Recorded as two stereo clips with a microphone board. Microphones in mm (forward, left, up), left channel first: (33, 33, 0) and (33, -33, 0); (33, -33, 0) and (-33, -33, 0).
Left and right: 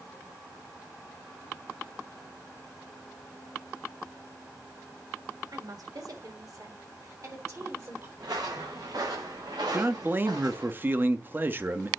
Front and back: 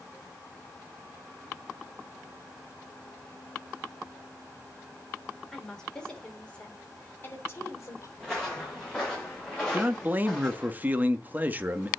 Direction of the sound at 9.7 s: 130° right.